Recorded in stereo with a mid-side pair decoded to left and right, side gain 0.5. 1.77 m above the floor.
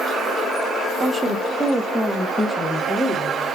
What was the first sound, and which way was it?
A woman speaking, 45° right.